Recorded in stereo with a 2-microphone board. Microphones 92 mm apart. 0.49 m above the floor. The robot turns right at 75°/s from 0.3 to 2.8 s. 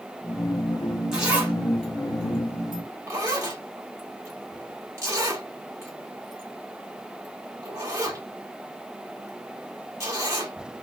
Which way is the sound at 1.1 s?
5° right (ahead or behind).